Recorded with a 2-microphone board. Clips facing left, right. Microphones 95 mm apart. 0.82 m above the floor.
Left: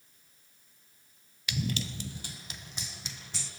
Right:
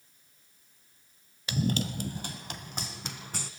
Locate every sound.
1.5 s running footsteps: 35° right (ahead or behind), 0.9 m; by 3.5 s 50° right (ahead or behind), 3 m